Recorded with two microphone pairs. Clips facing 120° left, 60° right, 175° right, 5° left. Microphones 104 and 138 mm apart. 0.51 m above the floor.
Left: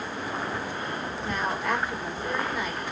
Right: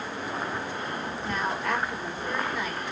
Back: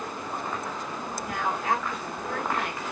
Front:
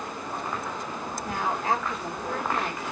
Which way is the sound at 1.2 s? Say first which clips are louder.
Left 1 dB, front 1 dB; 30° left.